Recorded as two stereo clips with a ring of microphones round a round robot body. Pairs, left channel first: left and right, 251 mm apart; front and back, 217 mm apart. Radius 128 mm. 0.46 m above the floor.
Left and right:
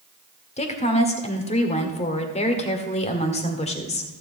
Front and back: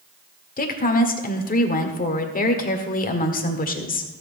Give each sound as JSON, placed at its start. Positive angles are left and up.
{"t": 0.6, "sound": "a woman speaking", "azimuth_deg": 35, "distance_m": 1.6}